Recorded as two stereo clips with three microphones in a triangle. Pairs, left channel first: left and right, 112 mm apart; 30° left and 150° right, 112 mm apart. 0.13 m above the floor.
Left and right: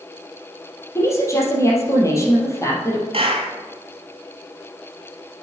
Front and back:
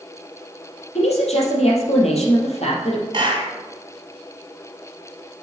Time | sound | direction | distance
0.9 | a woman speaking | 30° left | 3 m
3.1 | a clap | 110° right | 3 m